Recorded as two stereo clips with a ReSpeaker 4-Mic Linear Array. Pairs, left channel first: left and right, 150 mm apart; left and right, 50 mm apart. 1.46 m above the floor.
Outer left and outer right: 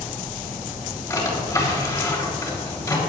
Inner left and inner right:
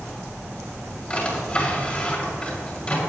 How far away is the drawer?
About 4 m.